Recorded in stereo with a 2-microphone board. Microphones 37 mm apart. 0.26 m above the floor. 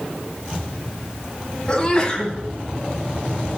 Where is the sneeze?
25° left (ahead or behind), 1.6 m.